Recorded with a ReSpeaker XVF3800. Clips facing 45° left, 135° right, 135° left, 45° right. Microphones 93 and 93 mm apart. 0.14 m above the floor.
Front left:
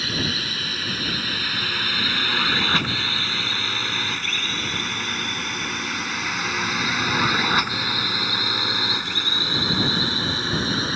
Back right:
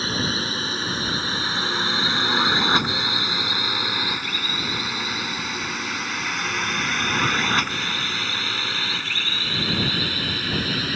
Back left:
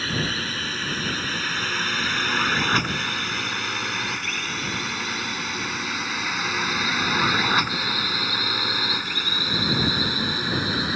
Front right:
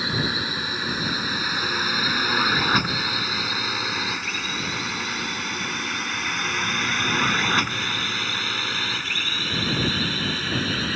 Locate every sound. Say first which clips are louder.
0.0 s a drone: back right 2 dB, front right 1 dB; 110° right; by 11.0 s 80° left